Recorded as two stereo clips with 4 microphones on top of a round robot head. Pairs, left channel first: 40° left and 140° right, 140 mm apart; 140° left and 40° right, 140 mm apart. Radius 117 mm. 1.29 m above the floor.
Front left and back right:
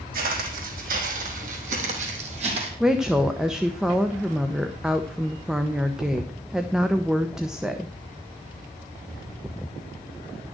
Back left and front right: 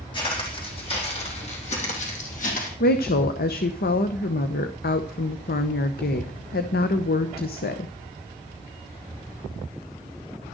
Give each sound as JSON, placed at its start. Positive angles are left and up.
{"t": 0.1, "sound": "footsteps", "azimuth_deg": -160, "distance_m": 3.5}
{"t": 2.8, "sound": "a woman speaking", "azimuth_deg": 135, "distance_m": 0.9}